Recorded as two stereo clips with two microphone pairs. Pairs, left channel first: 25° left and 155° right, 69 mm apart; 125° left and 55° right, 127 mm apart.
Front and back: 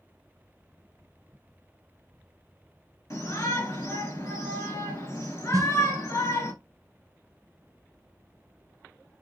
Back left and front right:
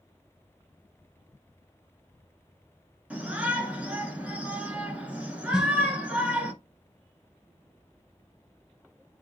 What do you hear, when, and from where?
3.1 s a shout: 20° left, 1.6 m
5.5 s a snare drum: 135° right, 0.6 m